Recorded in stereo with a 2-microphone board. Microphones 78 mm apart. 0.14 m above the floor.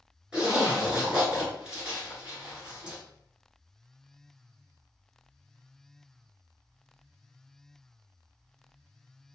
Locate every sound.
0.3 s a zipper: 10° right (ahead or behind), 1.7 m